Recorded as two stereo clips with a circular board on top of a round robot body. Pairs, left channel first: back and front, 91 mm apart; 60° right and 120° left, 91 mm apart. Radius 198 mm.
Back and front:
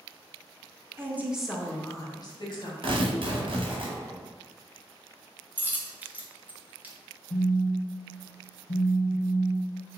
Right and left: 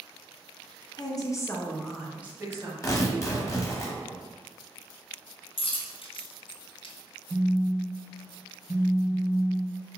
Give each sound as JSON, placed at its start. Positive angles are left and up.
{"t": 1.0, "sound": "a woman speaking", "azimuth_deg": -55, "distance_m": 1.0}
{"t": 2.8, "sound": "tearing paper", "azimuth_deg": -5, "distance_m": 1.3}
{"t": 5.6, "sound": "a dropped coin", "azimuth_deg": -75, "distance_m": 0.8}
{"t": 7.3, "sound": "a phone buzzing", "azimuth_deg": -165, "distance_m": 0.6}